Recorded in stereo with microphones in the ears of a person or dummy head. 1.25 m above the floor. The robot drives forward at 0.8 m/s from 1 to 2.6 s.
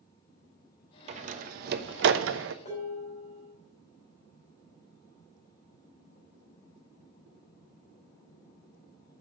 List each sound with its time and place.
1.1 s a door slam: 45° right (ahead or behind), 1.3 m; by 2.5 s 70° right (ahead or behind), 0.9 m
2.6 s dishes clattering: 35° left (ahead or behind), 5 m